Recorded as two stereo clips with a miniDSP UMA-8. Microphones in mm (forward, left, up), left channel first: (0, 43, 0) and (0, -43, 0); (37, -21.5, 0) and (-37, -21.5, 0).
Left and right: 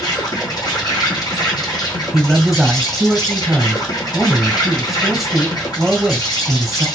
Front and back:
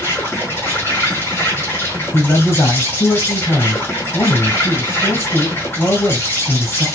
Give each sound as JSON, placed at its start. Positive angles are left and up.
{"t": 0.0, "sound": "an insect", "azimuth_deg": 55, "distance_m": 2.0}
{"t": 2.1, "sound": "a man speaking", "azimuth_deg": -10, "distance_m": 1.6}